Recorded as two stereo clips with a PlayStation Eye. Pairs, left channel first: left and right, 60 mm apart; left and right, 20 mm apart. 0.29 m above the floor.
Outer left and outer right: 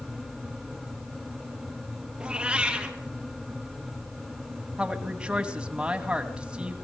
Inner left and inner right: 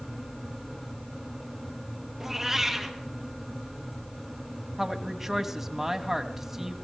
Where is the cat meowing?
15° right (ahead or behind), 2.0 m.